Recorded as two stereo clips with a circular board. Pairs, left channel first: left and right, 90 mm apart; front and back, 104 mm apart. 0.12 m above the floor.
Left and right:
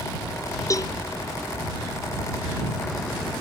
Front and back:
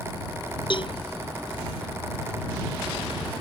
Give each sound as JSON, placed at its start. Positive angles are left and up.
{"t": 0.7, "sound": "a cowbell", "azimuth_deg": 40}